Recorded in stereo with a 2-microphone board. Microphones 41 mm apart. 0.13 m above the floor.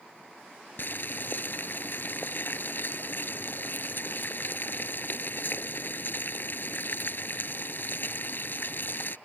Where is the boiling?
55° left (ahead or behind).